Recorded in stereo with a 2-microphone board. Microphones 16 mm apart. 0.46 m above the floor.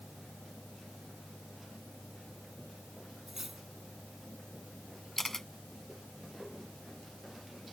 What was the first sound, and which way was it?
Cutlery clinking, 25° right (ahead or behind).